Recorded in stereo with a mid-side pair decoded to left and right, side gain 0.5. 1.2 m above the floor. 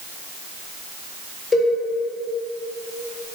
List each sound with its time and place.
1.5 s a cowbell: 30° left, 0.8 m